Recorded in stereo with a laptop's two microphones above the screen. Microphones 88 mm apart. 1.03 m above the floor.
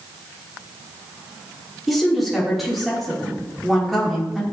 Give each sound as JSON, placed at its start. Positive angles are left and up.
{"t": 1.9, "sound": "a woman speaking", "side_deg": 0, "distance_m": 3.0}